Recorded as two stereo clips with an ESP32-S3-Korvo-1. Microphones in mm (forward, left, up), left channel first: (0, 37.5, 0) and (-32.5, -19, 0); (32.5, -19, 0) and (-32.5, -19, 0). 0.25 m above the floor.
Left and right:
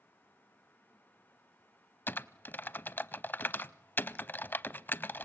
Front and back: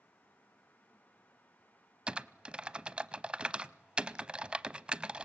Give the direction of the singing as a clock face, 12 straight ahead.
I don't hear singing.